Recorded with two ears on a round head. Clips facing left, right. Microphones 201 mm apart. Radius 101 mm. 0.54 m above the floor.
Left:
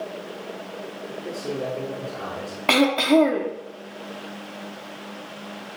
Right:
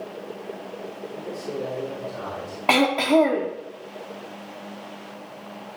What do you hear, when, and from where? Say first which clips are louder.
1.1 s a man speaking: left 2 dB; 50° left (ahead or behind), 4.5 m
2.7 s throat clearing: left 1 dB; 20° left (ahead or behind), 1.1 m